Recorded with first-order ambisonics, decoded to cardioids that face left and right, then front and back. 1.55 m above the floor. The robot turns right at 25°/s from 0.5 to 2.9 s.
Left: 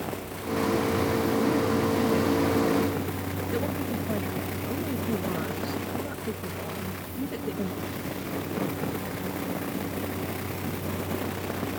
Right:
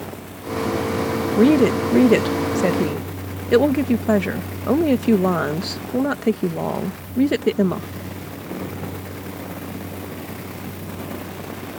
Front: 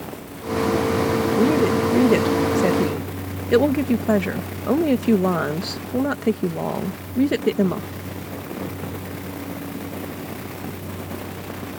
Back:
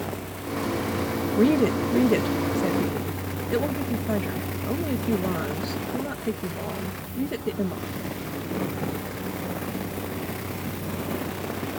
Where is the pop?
I don't hear a pop.